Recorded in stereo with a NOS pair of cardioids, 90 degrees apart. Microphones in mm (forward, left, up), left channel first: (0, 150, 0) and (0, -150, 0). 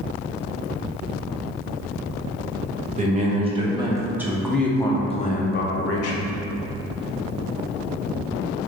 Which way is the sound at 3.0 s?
25° right.